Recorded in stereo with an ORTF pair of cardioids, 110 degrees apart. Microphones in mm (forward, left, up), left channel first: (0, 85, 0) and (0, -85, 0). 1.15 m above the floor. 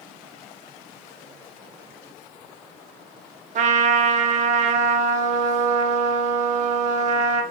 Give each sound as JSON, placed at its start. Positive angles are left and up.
{"t": 3.5, "sound": "a trumpet", "azimuth_deg": -45, "distance_m": 0.5}